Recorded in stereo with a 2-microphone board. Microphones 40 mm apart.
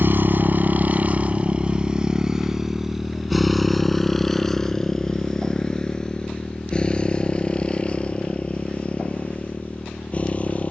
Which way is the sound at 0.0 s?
55° right (ahead or behind).